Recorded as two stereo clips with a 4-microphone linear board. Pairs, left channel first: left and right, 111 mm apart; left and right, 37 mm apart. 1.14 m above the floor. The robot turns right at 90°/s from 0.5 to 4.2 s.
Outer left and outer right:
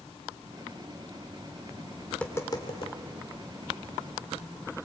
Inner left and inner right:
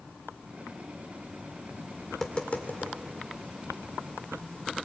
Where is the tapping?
Centre (ahead or behind), 2 m; by 3.0 s 75° left (ahead or behind), 2 m.